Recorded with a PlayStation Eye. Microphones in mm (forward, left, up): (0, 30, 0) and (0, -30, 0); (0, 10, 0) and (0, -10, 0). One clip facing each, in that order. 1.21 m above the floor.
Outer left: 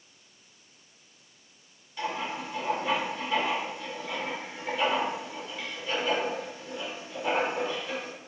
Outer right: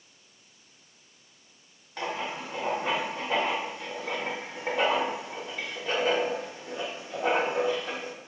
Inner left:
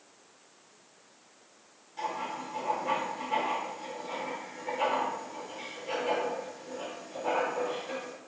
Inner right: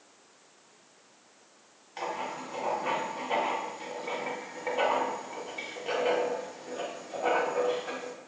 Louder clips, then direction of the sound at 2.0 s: Even, even; 80° right.